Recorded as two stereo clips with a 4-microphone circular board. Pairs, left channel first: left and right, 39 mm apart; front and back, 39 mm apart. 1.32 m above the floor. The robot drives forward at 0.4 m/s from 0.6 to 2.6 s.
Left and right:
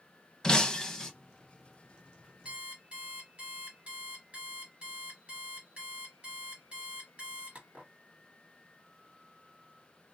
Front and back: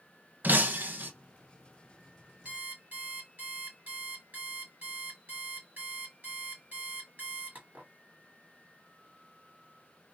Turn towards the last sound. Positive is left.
turn(degrees=-140)